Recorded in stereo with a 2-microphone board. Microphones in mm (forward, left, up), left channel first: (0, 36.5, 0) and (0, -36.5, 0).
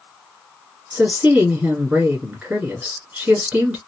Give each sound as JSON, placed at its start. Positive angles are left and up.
{"t": 0.9, "sound": "a woman speaking", "side_deg": -15, "distance_m": 1.7}